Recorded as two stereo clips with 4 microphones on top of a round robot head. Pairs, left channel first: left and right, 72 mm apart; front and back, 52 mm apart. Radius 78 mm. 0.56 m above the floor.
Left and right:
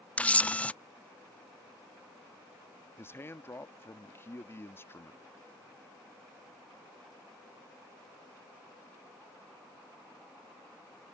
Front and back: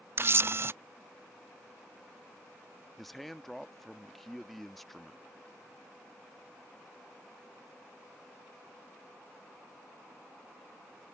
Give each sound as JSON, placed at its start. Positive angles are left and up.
{"t": 0.2, "sound": "a camera shutter", "azimuth_deg": 160}
{"t": 3.0, "sound": "a man speaking", "azimuth_deg": 85}